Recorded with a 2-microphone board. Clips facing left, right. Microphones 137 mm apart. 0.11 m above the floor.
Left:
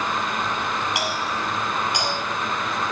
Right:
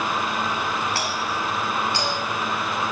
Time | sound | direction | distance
0.9 | a doorbell | 15° left (ahead or behind) | 6.5 m